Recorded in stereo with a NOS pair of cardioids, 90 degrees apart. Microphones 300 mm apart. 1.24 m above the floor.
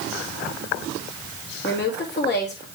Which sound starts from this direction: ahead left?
A woman speaking, at 1.6 s.